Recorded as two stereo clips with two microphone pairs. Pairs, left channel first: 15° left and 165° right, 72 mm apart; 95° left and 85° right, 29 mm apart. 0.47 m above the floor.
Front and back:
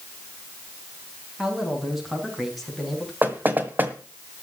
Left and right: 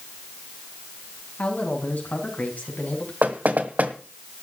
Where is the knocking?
100° right, 1.7 m.